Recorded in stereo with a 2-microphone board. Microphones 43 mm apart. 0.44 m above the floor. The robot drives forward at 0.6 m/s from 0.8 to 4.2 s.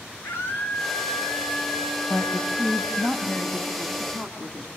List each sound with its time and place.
0.2 s a scream: 70° left (ahead or behind), 8.5 m; by 3.1 s 65° left (ahead or behind), 9 m
2.1 s a woman speaking: 40° left (ahead or behind), 3 m; by 4.7 s 25° left (ahead or behind), 4 m